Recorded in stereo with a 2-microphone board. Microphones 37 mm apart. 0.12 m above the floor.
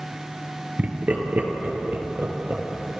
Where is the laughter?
40° right (ahead or behind), 2 m; by 2.6 s 50° right (ahead or behind), 4 m.